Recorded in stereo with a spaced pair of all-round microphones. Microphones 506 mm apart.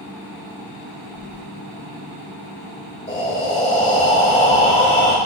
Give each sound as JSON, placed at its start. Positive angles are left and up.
{"t": 1.1, "sound": "keys jangling", "side_deg": 70, "distance_m": 0.9}
{"t": 3.1, "sound": "breathing", "side_deg": 15, "distance_m": 2.5}